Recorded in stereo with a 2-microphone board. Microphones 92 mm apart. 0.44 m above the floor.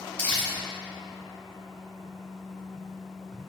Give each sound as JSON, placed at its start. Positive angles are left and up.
{"t": 0.2, "sound": "crumpling", "side_deg": 15, "distance_m": 0.7}